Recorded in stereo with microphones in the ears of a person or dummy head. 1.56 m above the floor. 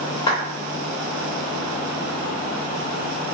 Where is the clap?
25° left (ahead or behind), 0.8 m.